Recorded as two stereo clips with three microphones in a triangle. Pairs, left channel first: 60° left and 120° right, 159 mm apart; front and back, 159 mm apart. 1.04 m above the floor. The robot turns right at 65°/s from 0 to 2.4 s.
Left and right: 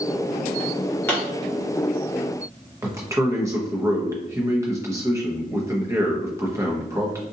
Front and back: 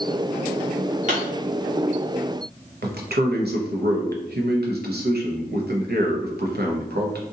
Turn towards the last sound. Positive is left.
turn(degrees=170)